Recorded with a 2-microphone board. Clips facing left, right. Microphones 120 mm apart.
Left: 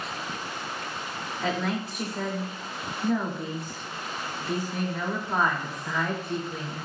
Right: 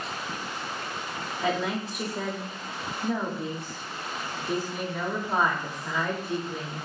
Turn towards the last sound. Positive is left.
turn(degrees=-10)  # may be behind; listen again after turning